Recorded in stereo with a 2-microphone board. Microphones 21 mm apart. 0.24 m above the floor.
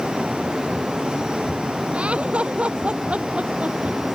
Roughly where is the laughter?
Right.